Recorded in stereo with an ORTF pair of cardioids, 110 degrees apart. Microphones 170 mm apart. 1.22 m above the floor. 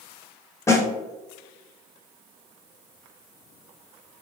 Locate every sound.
0.7 s a snare drum: 15° left, 0.9 m